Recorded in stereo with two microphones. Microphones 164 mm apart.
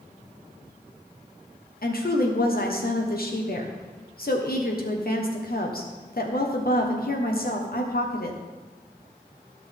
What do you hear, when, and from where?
1.8 s a woman speaking: 65° left (ahead or behind), 1.2 m